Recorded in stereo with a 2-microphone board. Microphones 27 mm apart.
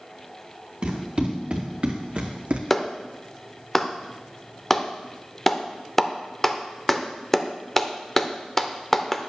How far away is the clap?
About 0.5 m.